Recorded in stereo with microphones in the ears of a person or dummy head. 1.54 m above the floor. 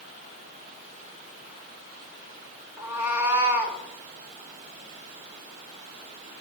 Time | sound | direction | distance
2.8 | a cat meowing | 10° right (ahead or behind) | 2 m